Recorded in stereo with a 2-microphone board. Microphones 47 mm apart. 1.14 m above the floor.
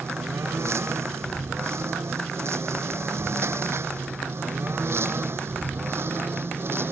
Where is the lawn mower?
70° right (ahead or behind); by 6.9 s 55° right (ahead or behind).